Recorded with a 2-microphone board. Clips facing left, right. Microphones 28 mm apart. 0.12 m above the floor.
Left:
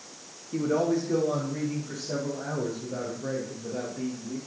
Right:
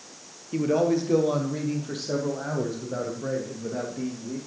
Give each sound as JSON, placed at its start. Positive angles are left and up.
{"t": 0.5, "sound": "a man speaking", "side_deg": -35, "distance_m": 1.9}